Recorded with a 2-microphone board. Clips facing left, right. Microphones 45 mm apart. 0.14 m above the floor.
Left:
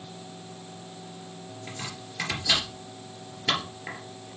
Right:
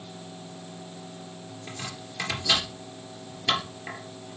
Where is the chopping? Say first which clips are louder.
Right 1 dB; 10° left (ahead or behind), 3 m.